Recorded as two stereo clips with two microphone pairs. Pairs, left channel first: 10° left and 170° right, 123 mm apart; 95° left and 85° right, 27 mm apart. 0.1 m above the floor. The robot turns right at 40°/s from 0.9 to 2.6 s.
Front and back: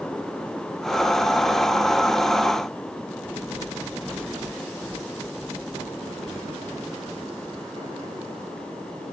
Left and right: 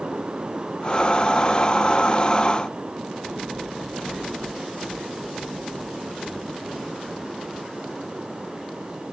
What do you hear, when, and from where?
Only background noise.